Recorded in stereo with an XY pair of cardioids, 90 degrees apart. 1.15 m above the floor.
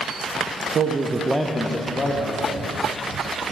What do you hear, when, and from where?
0.7 s a man speaking: 55° right, 0.7 m; by 2.7 s 55° left, 1.5 m